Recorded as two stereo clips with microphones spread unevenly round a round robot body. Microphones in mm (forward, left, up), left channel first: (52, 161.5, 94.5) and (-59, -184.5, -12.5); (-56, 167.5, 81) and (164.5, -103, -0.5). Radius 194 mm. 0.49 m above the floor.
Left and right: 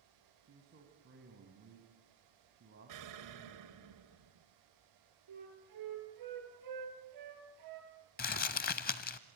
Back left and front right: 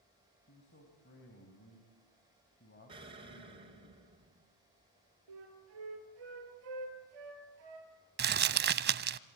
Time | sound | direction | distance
0.5 | a man speaking | 165° right | 3.5 m
2.9 | an explosion | 120° right | 2 m
5.3 | a flute | 75° right | 5.5 m
8.2 | crumpling | 15° left | 0.5 m